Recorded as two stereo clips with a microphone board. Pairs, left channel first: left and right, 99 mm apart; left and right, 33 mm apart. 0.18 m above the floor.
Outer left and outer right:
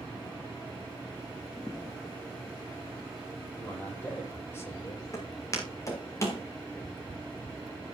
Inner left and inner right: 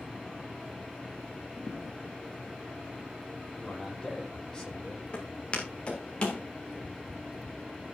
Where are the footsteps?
35° left (ahead or behind), 7 m; by 6.4 s 30° left (ahead or behind), 6 m.